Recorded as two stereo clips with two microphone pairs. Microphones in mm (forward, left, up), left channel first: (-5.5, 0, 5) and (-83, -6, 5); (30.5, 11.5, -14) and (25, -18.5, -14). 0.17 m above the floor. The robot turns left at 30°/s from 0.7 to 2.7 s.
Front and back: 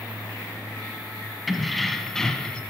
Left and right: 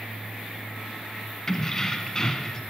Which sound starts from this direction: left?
Keys jangling, at 1.5 s.